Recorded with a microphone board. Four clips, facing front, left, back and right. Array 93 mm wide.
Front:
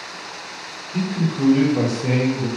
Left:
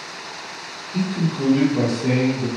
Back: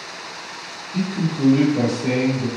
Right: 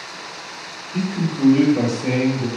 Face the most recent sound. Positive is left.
turn(degrees=-50)